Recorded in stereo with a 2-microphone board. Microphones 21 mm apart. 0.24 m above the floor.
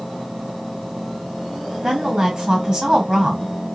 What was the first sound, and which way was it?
A woman speaking, 30° right (ahead or behind).